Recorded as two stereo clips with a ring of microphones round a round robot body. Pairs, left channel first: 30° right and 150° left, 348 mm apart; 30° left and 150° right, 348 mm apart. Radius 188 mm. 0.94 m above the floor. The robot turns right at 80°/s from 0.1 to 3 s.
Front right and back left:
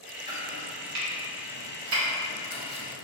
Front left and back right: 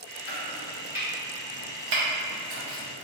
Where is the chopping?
70° left, 0.7 m; by 3.1 s 70° right, 0.7 m.